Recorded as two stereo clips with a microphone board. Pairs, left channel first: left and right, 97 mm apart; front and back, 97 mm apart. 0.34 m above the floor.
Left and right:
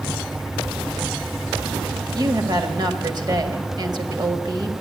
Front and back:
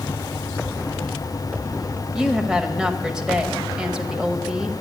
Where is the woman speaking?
95° right, 1.5 m.